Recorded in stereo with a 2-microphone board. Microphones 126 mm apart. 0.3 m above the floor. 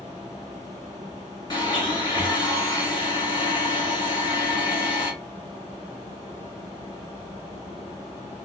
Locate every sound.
1.5 s a blender: 35° left (ahead or behind), 1.8 m